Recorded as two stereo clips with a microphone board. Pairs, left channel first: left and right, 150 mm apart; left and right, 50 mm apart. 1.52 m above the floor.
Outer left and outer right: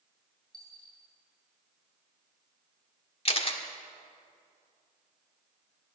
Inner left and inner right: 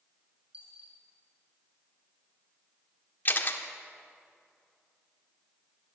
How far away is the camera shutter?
About 1.7 m.